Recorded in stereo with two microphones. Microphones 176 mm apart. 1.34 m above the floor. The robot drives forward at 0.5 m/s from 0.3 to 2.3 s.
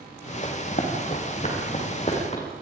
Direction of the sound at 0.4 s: 50° left (ahead or behind).